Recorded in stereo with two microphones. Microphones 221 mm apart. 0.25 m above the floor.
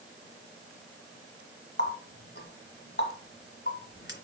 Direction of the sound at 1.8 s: 50° left (ahead or behind).